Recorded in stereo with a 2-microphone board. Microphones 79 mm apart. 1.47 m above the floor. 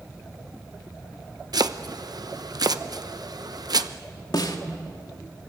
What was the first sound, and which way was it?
Chopping, 55° right (ahead or behind).